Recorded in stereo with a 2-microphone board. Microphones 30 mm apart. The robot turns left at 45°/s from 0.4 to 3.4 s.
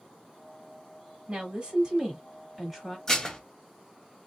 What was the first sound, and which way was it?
A woman speaking, 100° right.